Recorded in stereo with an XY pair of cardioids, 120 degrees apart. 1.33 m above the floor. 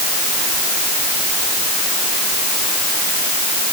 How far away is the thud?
I don't hear a thud.